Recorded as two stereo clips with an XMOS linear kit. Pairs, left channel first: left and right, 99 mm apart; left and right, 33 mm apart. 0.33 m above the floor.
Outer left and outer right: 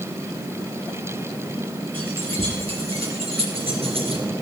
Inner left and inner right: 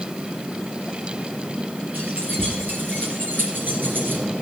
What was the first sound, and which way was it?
Keys jangling, 65° right (ahead or behind).